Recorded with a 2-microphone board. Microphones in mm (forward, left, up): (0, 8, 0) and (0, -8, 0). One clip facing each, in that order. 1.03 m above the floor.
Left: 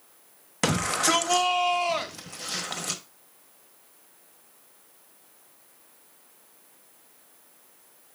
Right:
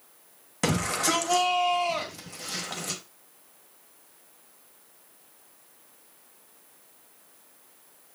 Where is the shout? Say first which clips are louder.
Left 2 dB; 20° left (ahead or behind), 1.1 m.